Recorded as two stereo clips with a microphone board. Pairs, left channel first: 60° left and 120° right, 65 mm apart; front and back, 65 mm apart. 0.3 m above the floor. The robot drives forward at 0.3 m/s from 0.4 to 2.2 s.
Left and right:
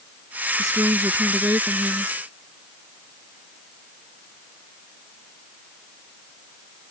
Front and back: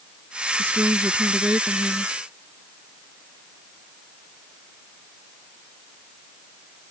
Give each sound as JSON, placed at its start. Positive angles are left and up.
{"t": 0.6, "sound": "a woman speaking", "azimuth_deg": -130}